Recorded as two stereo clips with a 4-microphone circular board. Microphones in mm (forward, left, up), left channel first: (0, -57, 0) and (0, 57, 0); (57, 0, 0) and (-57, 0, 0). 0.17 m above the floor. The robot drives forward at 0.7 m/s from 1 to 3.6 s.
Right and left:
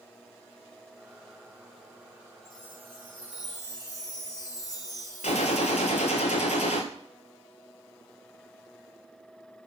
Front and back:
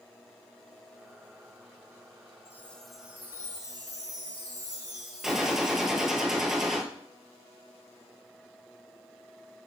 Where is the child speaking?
No child speaking in this recording.